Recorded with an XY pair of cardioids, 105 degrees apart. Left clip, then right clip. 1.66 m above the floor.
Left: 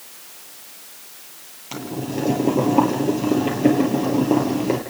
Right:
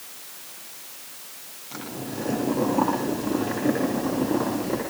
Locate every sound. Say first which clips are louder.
1.7 s boiling: left 6 dB; 65° left, 9.5 m